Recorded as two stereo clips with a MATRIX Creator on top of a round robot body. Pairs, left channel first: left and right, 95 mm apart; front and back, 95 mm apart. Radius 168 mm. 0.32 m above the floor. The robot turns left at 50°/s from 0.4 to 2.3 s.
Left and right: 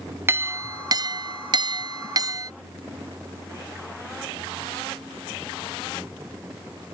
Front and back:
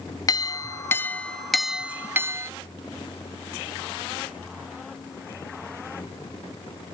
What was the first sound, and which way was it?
A clink, 30° right.